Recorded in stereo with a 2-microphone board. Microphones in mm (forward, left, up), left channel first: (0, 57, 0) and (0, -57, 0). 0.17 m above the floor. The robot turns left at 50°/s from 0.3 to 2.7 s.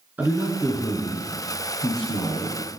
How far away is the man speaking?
About 1.7 m.